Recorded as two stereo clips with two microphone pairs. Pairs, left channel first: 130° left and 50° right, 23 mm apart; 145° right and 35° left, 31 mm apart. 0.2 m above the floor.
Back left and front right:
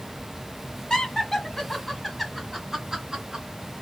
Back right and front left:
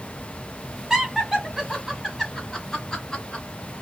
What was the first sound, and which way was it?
Laughter, 95° left.